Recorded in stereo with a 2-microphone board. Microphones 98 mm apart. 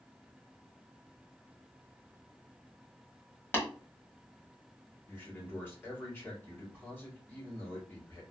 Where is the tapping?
20° left (ahead or behind), 1.5 m.